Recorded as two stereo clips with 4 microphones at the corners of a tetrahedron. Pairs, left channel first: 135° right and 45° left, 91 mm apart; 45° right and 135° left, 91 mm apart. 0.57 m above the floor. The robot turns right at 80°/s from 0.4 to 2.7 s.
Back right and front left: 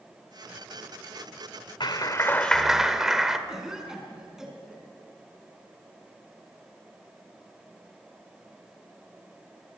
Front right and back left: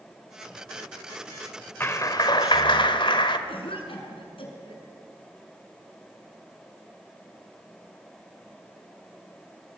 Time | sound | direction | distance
1.8 | a clap | 110° right | 1.7 m
3.5 | a cough | 40° right | 6 m